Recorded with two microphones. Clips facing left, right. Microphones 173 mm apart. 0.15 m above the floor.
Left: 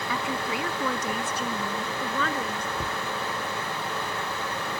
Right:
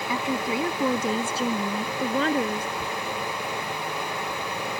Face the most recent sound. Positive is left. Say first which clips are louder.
# right 1 dB
turn(degrees=35)  # may be behind; listen again after turning